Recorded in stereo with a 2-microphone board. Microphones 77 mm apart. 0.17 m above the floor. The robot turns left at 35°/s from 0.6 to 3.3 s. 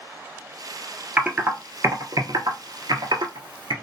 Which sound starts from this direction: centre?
Typing on a keyboard, at 1.2 s.